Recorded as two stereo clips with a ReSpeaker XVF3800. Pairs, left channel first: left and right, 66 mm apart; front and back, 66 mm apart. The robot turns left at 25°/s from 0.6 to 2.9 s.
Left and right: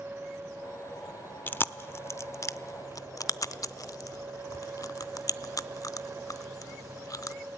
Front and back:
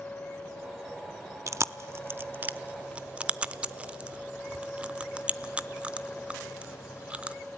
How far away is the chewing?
About 0.6 m.